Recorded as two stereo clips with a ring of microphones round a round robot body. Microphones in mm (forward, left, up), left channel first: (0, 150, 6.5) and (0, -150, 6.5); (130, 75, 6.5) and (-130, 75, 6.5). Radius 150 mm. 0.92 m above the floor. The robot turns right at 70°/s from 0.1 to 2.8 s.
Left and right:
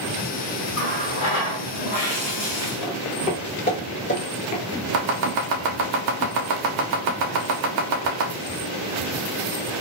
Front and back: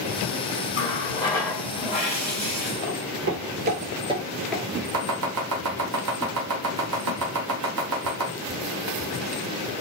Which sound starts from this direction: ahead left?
A running tap, at 0.7 s.